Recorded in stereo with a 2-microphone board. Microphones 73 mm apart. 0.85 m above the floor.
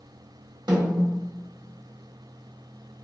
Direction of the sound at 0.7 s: 85° right.